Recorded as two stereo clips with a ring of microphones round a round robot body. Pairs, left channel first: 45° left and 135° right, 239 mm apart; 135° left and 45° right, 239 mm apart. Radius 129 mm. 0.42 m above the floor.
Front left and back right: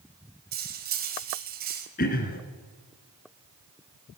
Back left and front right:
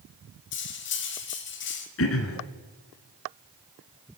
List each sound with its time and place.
0.5 s cutlery clinking: 175° left, 1.6 m
2.0 s throat clearing: 100° left, 1.6 m